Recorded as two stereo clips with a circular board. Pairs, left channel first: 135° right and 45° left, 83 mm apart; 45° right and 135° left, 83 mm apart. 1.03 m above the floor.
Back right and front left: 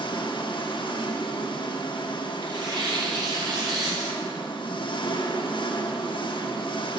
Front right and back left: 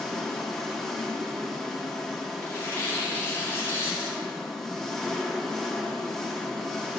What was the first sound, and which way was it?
An engine running, 130° right.